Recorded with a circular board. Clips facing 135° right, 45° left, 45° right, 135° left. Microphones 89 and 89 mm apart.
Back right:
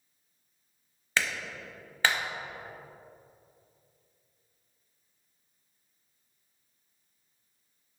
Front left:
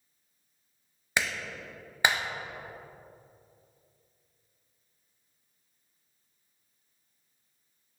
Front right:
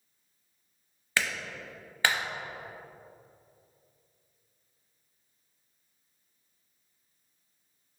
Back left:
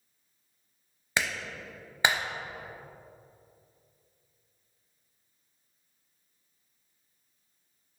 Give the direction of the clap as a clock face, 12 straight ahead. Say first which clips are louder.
Even, even; 9 o'clock.